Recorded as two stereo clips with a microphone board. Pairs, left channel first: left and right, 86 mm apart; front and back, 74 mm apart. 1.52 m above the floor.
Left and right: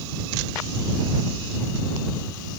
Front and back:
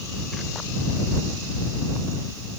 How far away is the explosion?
I don't hear an explosion.